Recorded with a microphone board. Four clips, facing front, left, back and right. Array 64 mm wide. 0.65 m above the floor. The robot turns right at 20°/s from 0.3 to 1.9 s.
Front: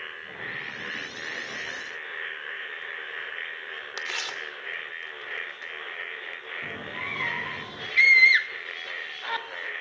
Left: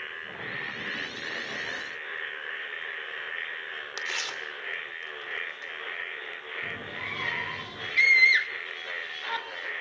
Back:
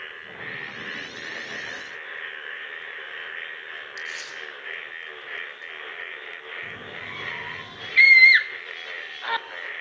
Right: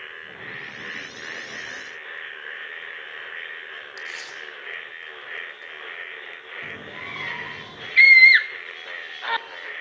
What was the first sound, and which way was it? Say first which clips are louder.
Tearing paper: left 3 dB, front 3 dB; 30° left.